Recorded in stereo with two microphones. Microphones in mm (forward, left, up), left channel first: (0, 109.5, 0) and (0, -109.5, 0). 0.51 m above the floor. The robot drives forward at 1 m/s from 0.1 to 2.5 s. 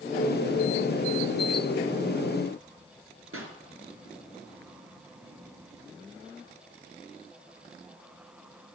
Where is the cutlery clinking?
No cutlery clinking in this recording.